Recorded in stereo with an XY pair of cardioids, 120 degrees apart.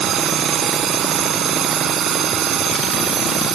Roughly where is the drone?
Ahead right.